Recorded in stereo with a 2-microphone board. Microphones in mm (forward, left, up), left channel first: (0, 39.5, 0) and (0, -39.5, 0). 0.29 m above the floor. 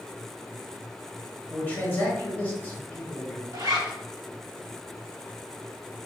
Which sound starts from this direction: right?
A zipper, at 3.5 s.